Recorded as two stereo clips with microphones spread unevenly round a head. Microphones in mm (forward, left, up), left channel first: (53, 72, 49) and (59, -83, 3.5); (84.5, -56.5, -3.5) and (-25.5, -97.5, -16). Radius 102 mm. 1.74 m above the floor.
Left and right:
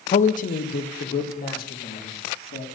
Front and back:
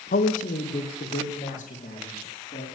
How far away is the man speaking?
About 0.6 m.